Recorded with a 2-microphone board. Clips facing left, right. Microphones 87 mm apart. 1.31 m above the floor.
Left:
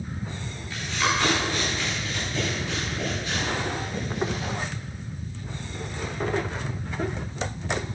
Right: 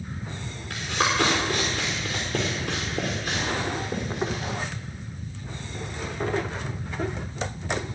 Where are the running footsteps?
65° right (ahead or behind), 4.5 m; by 4.5 s 45° right (ahead or behind), 6 m.